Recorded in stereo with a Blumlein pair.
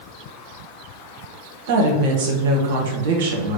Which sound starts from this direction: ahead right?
A woman speaking, at 1.7 s.